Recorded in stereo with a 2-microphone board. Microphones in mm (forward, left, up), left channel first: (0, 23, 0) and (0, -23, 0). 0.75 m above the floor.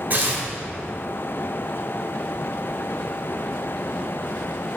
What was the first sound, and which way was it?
Tearing paper, 45° right (ahead or behind).